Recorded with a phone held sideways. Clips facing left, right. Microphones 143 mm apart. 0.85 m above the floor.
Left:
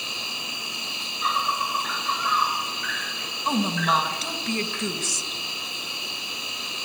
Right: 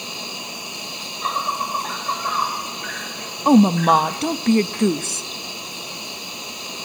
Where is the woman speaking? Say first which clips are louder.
Right 11 dB; 50° right (ahead or behind), 0.6 m.